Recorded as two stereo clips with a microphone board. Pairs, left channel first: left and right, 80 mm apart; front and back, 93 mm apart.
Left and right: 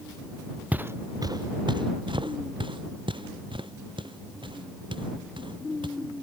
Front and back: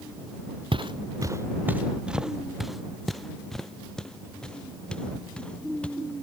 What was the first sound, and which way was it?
Footsteps, 160° right.